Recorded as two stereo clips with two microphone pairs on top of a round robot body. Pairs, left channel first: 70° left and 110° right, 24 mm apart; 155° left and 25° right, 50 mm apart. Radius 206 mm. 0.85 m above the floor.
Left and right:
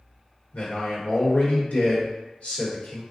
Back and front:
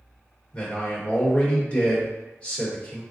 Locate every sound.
0.5 s a man speaking: 90° left, 1.4 m